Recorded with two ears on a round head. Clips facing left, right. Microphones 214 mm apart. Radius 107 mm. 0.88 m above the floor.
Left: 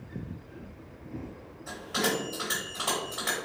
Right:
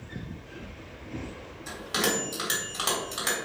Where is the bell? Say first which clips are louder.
Right 1 dB; 50° right (ahead or behind), 1.6 m.